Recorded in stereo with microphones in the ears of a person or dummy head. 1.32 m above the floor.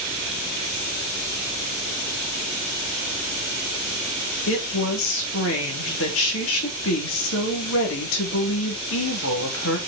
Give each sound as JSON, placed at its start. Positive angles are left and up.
{"t": 4.5, "sound": "a woman speaking", "side_deg": 75, "distance_m": 3.0}